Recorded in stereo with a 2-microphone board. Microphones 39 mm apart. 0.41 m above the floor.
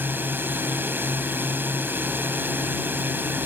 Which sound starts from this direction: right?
A drone, at 0.0 s.